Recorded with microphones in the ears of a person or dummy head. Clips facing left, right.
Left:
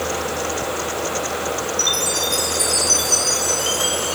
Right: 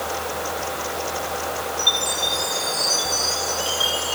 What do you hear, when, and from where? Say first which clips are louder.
1.8 s a chime: left 3 dB; 30° left (ahead or behind), 3.5 m